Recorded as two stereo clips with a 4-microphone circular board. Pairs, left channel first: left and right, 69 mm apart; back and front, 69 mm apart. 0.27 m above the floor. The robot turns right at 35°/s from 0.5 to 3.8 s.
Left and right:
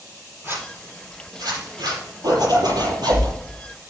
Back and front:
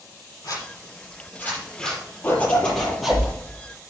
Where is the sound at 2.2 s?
115° right, 6 m; by 3.3 s 80° right, 6 m.